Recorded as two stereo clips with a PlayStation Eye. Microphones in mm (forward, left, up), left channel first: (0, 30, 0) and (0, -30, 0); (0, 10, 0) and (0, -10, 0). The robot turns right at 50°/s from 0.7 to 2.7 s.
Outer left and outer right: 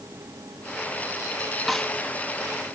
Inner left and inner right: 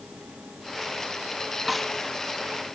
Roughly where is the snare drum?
Centre.